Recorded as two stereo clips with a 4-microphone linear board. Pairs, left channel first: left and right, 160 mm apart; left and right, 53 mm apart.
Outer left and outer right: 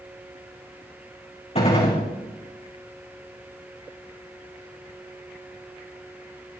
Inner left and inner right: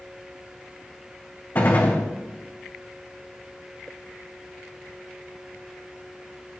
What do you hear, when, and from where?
1.6 s a gunshot: 40° left (ahead or behind), 3.5 m